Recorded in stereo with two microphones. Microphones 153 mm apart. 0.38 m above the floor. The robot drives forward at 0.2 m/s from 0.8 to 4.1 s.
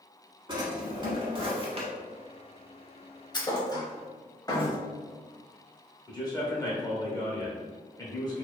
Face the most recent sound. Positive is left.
turn(degrees=25)  # may be behind; listen again after turning